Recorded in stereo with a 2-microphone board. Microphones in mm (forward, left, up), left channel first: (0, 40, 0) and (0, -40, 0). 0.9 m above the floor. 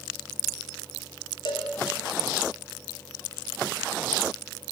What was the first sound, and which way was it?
A cowbell, 65° left (ahead or behind).